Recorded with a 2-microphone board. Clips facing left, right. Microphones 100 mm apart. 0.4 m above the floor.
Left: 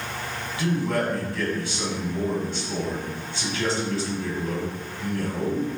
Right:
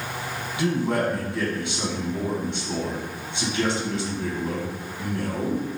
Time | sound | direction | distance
0.6 | a man speaking | 25° right (ahead or behind) | 3.5 m